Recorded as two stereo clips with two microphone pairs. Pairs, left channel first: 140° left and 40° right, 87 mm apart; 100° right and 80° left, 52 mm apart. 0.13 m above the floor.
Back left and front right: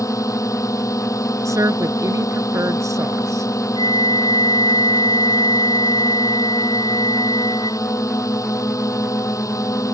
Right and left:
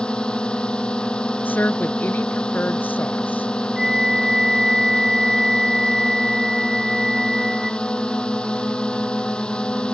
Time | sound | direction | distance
0.0 | a drone | 170° right | ?
1.4 | a woman speaking | 70° right | ?
3.8 | a flute | 160° left | ?